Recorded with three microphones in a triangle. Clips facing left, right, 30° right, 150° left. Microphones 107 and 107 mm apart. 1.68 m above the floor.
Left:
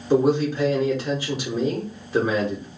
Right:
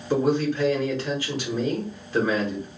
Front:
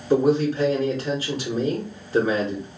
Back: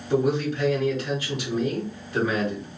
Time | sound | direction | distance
0.1 | a man speaking | 15° left | 1.0 m